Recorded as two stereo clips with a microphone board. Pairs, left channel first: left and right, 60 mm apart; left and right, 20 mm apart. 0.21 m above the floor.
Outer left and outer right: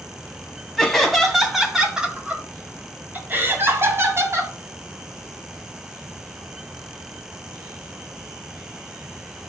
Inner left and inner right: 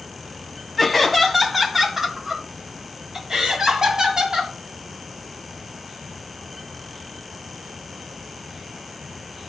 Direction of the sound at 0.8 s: 5° left (ahead or behind).